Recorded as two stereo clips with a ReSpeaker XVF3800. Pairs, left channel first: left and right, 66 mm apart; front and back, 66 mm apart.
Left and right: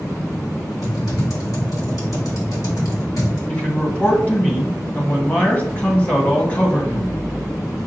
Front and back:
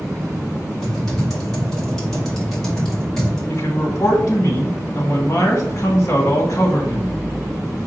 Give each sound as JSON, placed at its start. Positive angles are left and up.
{"t": 0.8, "sound": "typing on a keyboard", "azimuth_deg": 80, "distance_m": 1.8}
{"t": 3.5, "sound": "a man speaking", "azimuth_deg": 30, "distance_m": 1.4}